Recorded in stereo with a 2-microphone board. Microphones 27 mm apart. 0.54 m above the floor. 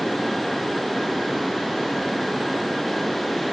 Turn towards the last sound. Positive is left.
No sound to turn to.